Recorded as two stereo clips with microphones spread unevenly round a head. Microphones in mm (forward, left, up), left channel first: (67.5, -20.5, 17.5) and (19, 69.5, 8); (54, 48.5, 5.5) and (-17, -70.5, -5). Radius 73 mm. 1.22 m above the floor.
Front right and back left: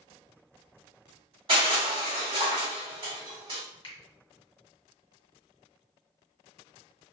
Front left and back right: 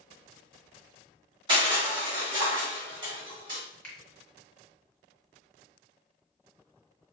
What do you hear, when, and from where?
1.5 s crushing: straight behind, 2.0 m
3.8 s a finger snap: 25° right, 1.7 m